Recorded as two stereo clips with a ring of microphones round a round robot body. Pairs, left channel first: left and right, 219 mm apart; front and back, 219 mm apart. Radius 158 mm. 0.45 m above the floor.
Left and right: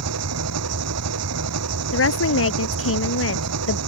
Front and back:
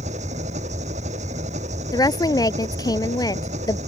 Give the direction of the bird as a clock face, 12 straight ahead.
No bird in this recording.